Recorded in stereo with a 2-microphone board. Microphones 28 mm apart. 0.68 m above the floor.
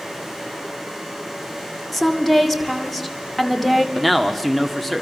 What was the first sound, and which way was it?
A woman speaking, 5° left (ahead or behind).